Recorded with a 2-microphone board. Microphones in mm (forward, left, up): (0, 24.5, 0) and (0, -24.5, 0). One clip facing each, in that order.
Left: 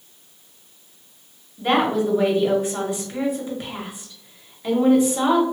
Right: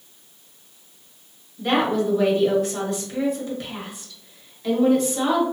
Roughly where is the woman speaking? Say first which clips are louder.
Left 1 dB; centre.